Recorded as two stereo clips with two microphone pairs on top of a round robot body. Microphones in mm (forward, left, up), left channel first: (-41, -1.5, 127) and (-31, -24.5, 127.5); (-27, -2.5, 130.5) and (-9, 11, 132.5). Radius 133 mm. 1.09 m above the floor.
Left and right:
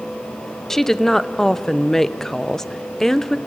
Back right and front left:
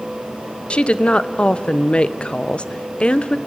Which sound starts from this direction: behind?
A woman speaking, at 0.7 s.